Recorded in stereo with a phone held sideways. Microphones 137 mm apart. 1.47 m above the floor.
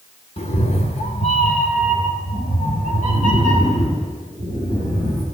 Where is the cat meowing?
50° left (ahead or behind), 2 m; by 5.2 s 75° left (ahead or behind), 5 m.